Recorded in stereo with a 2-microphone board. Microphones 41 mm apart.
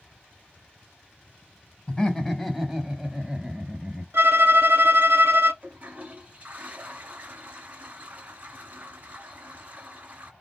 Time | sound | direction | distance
1.9 | laughter | 10° left (ahead or behind) | 1.3 m
4.1 | a violin | 65° right (ahead or behind) | 1.0 m
5.6 | a toilet flushing | 40° right (ahead or behind) | 1.8 m